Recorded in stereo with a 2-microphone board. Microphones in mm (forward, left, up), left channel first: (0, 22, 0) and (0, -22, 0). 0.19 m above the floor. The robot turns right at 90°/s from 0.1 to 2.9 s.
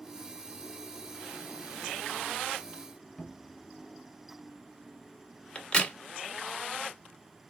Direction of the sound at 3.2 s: 10° left (ahead or behind).